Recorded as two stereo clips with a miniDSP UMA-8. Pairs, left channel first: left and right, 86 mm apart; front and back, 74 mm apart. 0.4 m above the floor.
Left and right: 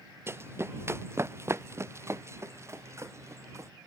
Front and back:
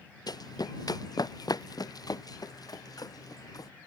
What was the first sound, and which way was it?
Running footsteps, 30° right.